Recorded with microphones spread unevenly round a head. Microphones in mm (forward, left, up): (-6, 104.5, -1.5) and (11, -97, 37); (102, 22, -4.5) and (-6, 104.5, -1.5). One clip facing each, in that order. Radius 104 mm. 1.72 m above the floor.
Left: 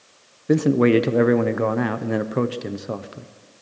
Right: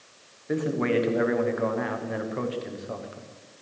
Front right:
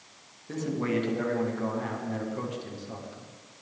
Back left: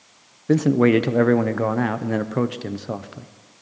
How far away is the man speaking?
About 0.9 m.